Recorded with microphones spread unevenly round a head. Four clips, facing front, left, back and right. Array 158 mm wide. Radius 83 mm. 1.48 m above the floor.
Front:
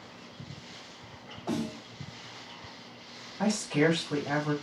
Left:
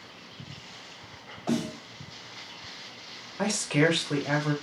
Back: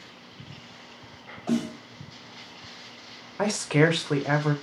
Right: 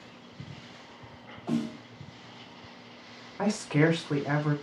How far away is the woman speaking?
About 0.9 m.